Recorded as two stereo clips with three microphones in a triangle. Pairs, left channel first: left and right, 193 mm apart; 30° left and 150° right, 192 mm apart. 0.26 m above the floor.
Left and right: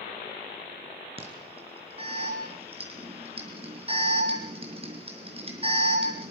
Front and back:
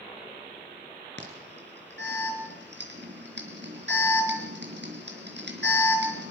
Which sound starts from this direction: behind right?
An alarm, at 1.2 s.